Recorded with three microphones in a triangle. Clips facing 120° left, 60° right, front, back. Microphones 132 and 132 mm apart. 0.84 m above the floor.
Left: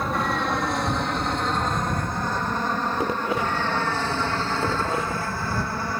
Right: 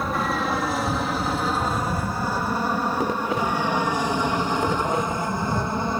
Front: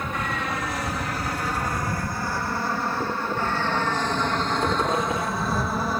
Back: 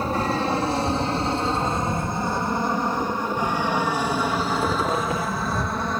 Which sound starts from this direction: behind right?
An aircraft, at 0.0 s.